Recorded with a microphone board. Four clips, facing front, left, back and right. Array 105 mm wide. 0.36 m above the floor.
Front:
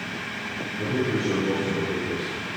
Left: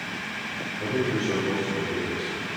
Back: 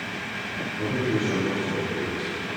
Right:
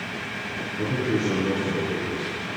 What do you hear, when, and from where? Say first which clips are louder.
0.8 s a man speaking: right 2 dB, even; 85° right, 5.5 m